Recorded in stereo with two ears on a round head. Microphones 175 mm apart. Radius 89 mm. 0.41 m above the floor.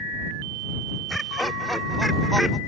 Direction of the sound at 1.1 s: Centre (ahead or behind).